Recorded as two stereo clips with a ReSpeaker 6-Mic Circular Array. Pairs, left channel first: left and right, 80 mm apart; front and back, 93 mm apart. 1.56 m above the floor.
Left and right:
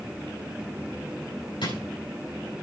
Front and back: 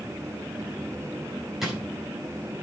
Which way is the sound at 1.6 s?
95° left.